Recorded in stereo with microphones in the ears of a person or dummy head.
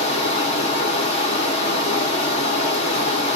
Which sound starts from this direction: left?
Running water, at 0.0 s.